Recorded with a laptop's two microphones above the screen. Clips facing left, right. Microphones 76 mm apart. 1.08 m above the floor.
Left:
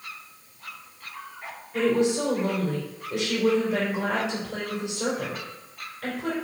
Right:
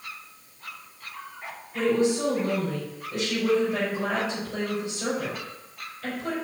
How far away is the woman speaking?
About 4.5 m.